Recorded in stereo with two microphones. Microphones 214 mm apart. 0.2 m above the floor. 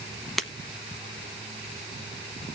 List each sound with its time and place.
0.4 s breaking glass: centre (ahead or behind), 0.8 m